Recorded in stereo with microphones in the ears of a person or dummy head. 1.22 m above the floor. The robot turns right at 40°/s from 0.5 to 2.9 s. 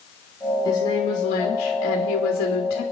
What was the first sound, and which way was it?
A woman speaking, 20° left.